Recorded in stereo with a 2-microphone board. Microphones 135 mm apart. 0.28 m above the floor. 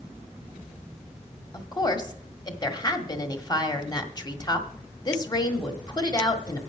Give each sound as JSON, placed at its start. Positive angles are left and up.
{"t": 1.5, "sound": "a woman speaking", "side_deg": 30, "distance_m": 1.4}